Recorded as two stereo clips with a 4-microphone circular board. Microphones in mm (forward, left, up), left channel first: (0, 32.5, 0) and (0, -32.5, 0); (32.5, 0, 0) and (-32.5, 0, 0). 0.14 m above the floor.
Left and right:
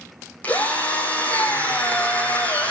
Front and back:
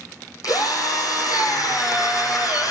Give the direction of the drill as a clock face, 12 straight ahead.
11 o'clock.